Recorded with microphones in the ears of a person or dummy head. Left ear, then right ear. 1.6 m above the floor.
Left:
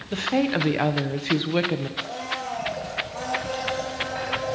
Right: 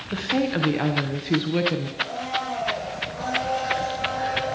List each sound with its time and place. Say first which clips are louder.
0.1 s a woman speaking: left 1 dB; 20° left (ahead or behind), 0.8 m
2.0 s a blender: right 3 dB; 60° left (ahead or behind), 7 m